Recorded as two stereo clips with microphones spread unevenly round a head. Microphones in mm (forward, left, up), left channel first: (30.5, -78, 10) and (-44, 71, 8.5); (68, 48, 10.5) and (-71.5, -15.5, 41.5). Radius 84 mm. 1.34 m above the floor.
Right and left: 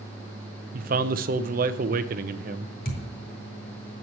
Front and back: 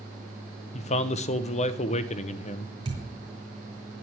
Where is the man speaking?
75° left, 0.8 m.